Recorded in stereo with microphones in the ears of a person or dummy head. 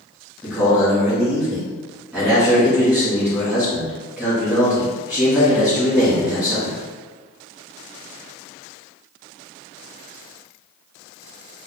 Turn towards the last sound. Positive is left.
turn(degrees=-5)  # may be behind; listen again after turning